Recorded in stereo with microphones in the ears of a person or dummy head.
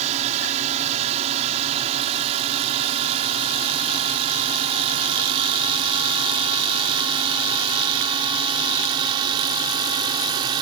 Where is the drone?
35° right (ahead or behind); by 10.6 s 25° right (ahead or behind).